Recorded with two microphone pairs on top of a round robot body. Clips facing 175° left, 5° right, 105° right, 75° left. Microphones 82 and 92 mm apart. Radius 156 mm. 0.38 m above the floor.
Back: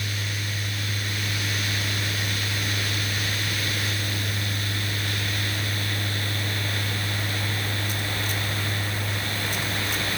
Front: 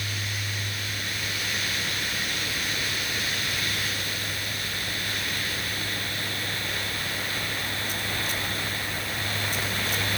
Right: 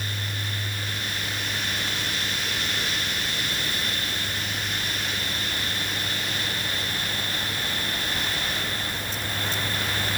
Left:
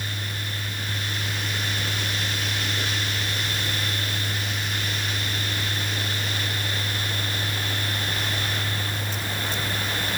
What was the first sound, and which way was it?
Only background noise.